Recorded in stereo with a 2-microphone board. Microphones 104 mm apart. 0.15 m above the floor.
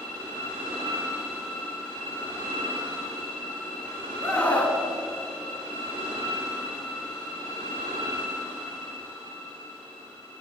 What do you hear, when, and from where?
4.2 s a scream: 10° left (ahead or behind), 1.6 m